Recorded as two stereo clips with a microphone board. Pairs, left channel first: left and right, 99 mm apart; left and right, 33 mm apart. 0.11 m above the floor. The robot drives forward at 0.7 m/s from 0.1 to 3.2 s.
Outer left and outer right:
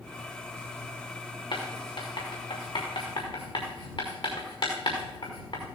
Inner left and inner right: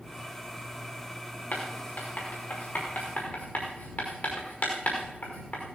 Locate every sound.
1.5 s writing: 55° left (ahead or behind), 5 m; by 5.6 s 45° left (ahead or behind), 5.5 m